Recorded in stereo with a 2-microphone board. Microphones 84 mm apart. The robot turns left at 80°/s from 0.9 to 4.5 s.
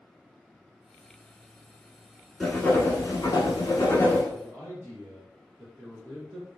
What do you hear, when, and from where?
2.4 s writing: straight behind, 1.0 m; by 4.2 s 35° left, 1.0 m
4.3 s a man speaking: 35° right (ahead or behind), 1.5 m; by 6.5 s 30° right (ahead or behind), 1.5 m